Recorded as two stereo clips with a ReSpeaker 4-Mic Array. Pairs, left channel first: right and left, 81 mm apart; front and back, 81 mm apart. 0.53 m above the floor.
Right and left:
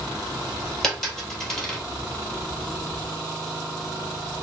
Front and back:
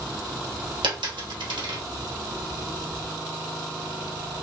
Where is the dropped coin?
175° right, 1.8 m.